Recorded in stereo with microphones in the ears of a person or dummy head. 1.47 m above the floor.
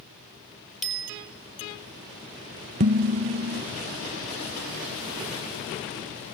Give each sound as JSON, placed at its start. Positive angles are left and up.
{"t": 0.8, "sound": "a bicycle bell", "side_deg": 0, "distance_m": 7.0}
{"t": 2.8, "sound": "dishes clattering", "side_deg": -35, "distance_m": 0.6}